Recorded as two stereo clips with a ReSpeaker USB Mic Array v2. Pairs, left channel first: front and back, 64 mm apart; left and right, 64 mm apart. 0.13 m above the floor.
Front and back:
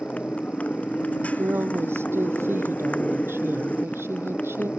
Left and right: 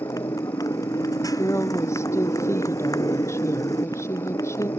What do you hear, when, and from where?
0.0 s a motorcycle: 70° left
1.2 s a woman speaking: 130° left